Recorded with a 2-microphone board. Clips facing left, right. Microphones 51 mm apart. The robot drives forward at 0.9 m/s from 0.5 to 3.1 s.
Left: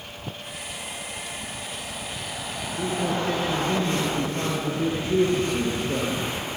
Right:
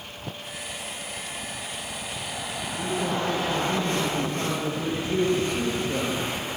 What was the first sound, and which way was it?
A man speaking, 45° left (ahead or behind).